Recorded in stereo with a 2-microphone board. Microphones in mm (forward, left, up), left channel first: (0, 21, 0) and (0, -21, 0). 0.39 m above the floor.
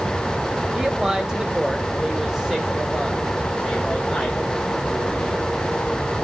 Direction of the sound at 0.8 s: 20° right (ahead or behind).